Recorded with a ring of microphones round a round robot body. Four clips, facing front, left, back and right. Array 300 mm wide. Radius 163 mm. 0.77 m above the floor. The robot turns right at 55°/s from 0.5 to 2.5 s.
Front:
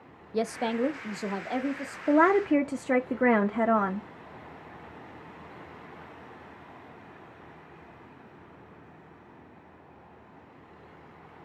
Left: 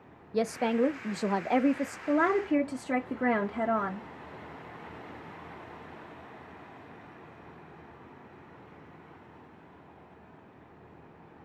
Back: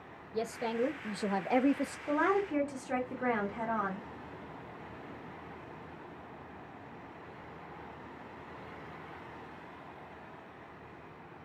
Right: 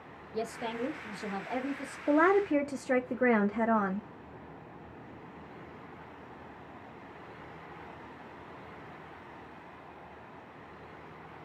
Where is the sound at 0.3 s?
45° left, 0.6 m; by 2.0 s 125° left, 0.6 m.